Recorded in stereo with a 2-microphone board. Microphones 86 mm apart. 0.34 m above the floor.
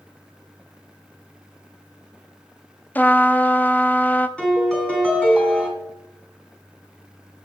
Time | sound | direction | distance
3.0 | a trumpet | 20° left (ahead or behind) | 0.5 m
4.4 | a piano | 10° left (ahead or behind) | 2.5 m